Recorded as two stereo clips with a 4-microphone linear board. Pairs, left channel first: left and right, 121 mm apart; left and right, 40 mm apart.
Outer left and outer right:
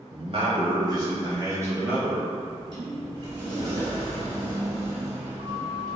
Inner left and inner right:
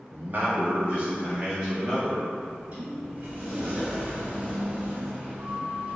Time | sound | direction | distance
0.1 | a man speaking | 55° right (ahead or behind) | 1.3 m
2.4 | a sliding door | 35° right (ahead or behind) | 1.7 m